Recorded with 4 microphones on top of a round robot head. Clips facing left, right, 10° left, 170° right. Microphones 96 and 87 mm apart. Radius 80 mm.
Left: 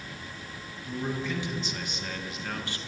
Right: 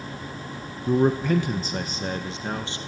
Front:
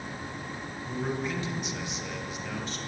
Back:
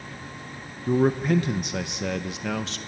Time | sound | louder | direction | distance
0.9 | a man speaking | right 12 dB, back 11 dB | 120° right | 1.2 m